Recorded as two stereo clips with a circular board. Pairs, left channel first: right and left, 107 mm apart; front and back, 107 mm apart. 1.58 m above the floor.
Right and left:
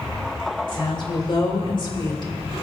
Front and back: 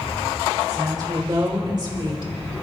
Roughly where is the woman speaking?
Behind right.